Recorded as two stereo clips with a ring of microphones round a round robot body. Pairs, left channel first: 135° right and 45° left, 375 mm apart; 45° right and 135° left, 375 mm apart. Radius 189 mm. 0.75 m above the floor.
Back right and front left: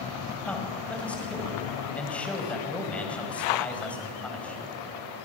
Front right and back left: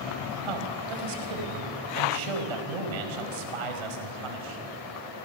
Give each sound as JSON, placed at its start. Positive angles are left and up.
{"t": 0.4, "sound": "a man speaking", "azimuth_deg": 140, "distance_m": 5.0}